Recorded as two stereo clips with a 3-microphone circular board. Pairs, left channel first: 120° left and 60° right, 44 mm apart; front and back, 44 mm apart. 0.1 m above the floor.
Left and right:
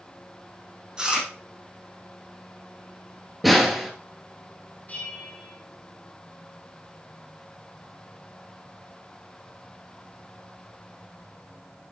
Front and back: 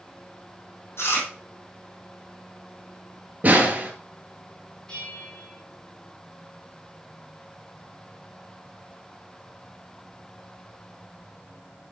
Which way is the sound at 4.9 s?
75° left.